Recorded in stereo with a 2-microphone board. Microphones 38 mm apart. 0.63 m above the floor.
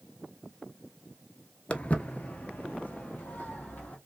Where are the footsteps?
35° left (ahead or behind), 0.6 m; by 4.0 s 45° left (ahead or behind), 1.7 m.